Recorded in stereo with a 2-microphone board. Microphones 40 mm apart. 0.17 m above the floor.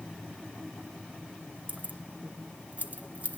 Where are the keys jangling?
45° right (ahead or behind), 1.7 m.